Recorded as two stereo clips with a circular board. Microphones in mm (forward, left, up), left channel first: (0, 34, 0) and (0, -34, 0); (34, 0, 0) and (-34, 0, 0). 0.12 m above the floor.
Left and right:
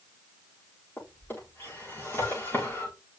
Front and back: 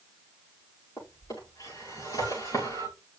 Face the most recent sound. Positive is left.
turn(degrees=30)